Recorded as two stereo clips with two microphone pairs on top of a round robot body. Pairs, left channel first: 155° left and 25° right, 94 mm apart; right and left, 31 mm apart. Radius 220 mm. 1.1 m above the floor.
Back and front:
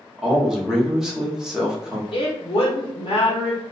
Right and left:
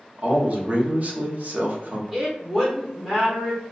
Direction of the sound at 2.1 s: 175° left.